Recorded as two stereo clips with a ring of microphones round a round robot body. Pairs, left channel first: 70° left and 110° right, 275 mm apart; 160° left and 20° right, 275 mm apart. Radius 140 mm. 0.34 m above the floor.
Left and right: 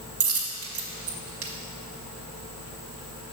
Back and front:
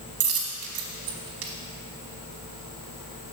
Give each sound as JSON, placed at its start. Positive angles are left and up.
{"t": 0.2, "sound": "a dropped coin", "azimuth_deg": -65, "distance_m": 0.9}